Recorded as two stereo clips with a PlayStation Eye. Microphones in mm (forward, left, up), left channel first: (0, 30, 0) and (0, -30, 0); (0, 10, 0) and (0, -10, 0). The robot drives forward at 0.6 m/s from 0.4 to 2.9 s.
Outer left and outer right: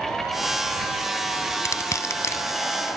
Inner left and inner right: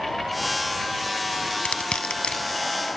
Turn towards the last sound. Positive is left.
turn(degrees=50)  # may be behind; listen again after turning